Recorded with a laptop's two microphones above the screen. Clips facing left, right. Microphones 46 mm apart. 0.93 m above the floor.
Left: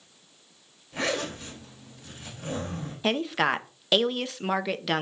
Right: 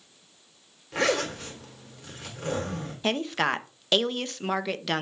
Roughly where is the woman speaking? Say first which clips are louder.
Left 1 dB; centre.